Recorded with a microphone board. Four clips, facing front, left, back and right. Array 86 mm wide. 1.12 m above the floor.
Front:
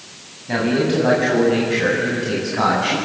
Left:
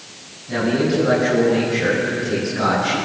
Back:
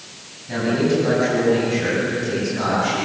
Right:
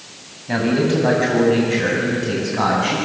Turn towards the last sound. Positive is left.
turn(degrees=-45)